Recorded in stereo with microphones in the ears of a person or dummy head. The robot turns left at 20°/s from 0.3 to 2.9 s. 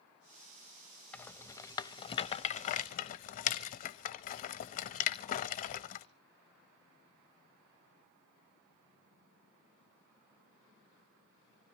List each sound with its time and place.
1.1 s a rattle: 10° left (ahead or behind), 1.1 m; by 6.0 s 40° left (ahead or behind), 1.1 m